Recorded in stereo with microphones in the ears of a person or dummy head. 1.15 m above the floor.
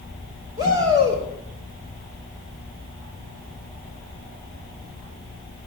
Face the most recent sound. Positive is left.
turn(degrees=-30)  # may be behind; listen again after turning